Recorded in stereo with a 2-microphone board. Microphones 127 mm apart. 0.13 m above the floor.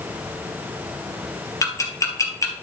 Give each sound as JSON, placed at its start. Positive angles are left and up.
{"t": 1.6, "sound": "ticking", "side_deg": 25, "distance_m": 2.5}